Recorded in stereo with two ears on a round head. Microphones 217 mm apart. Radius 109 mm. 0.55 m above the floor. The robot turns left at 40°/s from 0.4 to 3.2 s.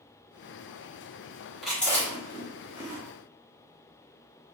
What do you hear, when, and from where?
1.6 s chewing: centre (ahead or behind), 1.5 m; by 3.0 s 25° left (ahead or behind), 1.5 m